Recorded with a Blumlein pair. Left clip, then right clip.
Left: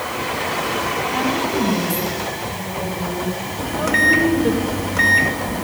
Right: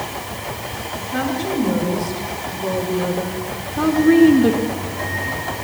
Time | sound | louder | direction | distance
1.1 | a woman speaking | left 2 dB | 55° right | 7.5 m
3.6 | a microwave | left 2 dB | 40° left | 1.6 m